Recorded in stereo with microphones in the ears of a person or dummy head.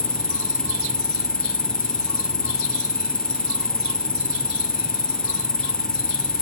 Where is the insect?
10° left (ahead or behind).